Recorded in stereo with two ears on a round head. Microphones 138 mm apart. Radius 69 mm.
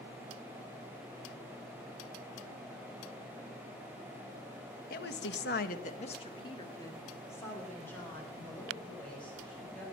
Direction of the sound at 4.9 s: 65° left (ahead or behind).